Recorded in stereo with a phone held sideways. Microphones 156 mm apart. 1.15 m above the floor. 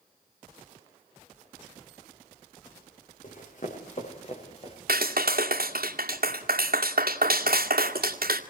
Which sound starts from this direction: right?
A clap, at 4.9 s.